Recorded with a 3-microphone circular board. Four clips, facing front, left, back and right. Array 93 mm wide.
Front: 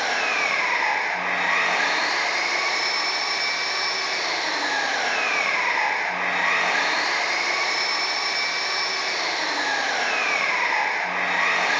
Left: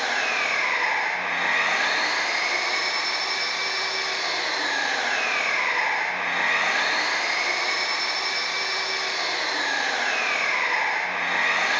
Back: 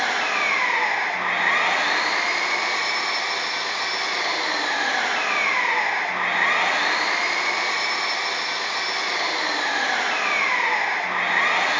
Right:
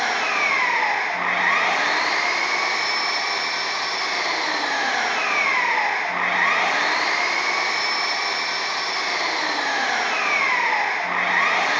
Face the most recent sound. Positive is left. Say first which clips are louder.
# right 3 dB, back 1 dB
turn(degrees=-105)